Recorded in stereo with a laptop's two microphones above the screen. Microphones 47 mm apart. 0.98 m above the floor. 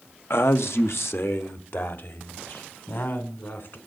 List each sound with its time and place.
0.3 s a man speaking: 60° left (ahead or behind), 1.0 m; by 3.8 s 55° left (ahead or behind), 4.5 m